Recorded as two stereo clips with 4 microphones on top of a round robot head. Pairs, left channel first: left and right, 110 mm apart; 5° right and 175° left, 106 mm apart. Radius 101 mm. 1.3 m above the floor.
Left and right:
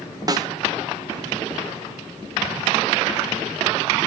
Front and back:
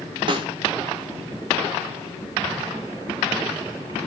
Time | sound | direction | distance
0.3 | a snare drum | 145° right | 1.0 m